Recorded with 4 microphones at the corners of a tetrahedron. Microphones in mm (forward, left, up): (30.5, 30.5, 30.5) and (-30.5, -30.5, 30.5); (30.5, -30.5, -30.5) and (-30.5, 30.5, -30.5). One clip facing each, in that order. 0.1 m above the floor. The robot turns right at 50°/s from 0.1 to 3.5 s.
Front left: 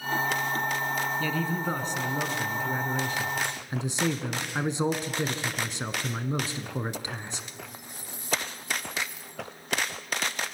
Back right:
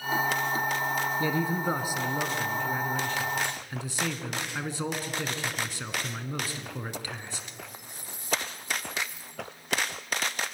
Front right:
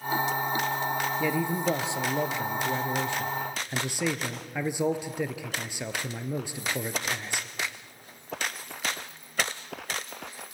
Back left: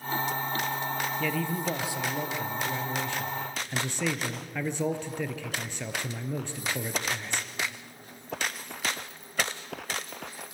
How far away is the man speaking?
About 1.1 m.